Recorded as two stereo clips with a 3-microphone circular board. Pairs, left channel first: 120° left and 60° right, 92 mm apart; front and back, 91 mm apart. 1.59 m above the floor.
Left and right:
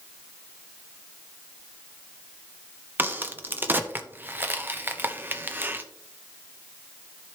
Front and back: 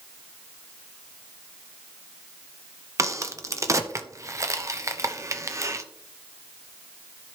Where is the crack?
125° right, 0.8 m.